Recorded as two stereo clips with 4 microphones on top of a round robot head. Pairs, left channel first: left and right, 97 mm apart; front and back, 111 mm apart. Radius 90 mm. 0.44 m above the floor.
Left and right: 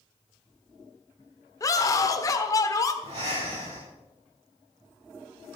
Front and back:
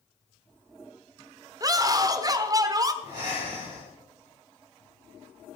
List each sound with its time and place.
1.6 s a scream: 135° left, 1.4 m
3.0 s breathing: 120° right, 5 m